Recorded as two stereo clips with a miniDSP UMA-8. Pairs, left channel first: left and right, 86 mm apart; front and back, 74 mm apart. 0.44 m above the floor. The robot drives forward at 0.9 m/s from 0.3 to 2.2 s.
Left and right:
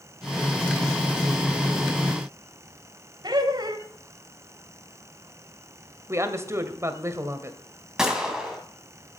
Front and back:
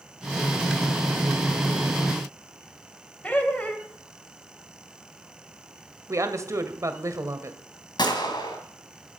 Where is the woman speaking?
140° right, 1.9 m.